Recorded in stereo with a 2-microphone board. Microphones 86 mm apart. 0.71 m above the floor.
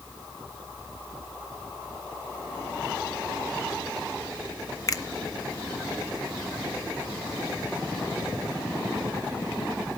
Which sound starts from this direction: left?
A finger snap, at 4.9 s.